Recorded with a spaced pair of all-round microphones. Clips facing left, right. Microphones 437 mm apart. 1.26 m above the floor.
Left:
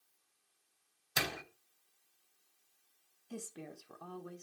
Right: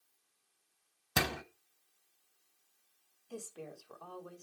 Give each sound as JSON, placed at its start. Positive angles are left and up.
{"t": 1.2, "sound": "a door slam", "side_deg": -70, "distance_m": 0.9}
{"t": 3.3, "sound": "a woman speaking", "side_deg": 35, "distance_m": 1.2}